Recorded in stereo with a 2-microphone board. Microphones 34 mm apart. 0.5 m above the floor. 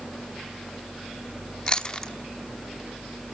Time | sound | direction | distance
1.7 | chewing | 25° left (ahead or behind) | 1.0 m